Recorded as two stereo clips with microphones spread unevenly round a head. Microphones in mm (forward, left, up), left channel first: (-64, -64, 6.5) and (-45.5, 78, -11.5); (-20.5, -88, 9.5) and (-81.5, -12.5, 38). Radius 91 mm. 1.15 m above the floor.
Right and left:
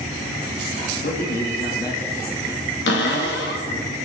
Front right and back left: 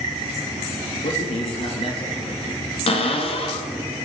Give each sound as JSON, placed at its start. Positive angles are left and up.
{"t": 1.0, "sound": "a man speaking", "azimuth_deg": -60, "distance_m": 2.0}
{"t": 2.9, "sound": "a cupboard door", "azimuth_deg": -65, "distance_m": 1.9}